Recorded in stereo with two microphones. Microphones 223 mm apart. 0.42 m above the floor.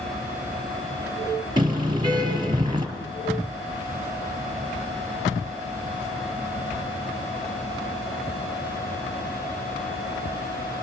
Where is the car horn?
20° right (ahead or behind), 5 m.